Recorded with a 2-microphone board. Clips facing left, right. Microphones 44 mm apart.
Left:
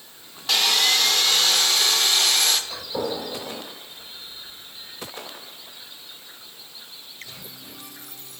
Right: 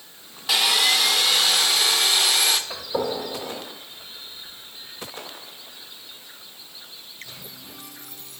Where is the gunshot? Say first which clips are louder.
Right 2 dB; 35° right (ahead or behind), 2.5 m.